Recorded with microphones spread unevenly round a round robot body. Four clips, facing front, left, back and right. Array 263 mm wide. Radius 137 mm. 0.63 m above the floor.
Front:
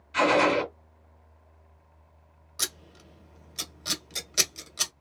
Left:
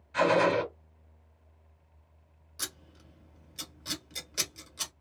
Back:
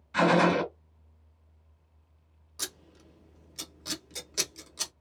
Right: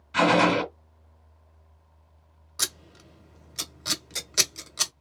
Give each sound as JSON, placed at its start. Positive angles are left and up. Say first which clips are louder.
{"t": 0.1, "sound": "a gunshot", "louder": "right 4 dB, front 1 dB", "azimuth_deg": -105, "distance_m": 2.0}
{"t": 2.6, "sound": "scissors", "louder": "right 6 dB, front 4 dB", "azimuth_deg": -60, "distance_m": 1.2}